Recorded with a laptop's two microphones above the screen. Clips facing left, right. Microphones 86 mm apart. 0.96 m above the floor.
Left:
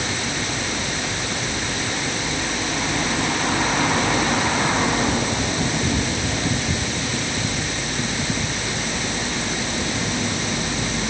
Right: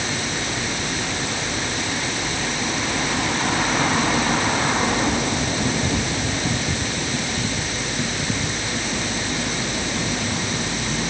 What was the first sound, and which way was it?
Only background noise.